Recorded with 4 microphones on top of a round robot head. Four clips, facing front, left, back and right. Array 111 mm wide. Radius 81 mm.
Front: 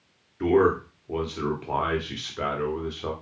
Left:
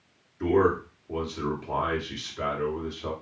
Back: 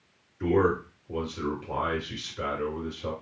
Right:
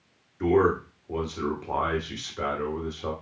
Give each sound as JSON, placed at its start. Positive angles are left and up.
{"t": 0.4, "sound": "a man speaking", "azimuth_deg": -25, "distance_m": 1.5}